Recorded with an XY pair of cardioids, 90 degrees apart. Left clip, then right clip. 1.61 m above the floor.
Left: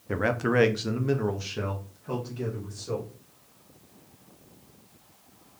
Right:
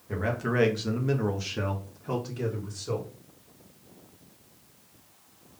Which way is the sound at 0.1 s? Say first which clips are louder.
Left 4 dB; 65° left.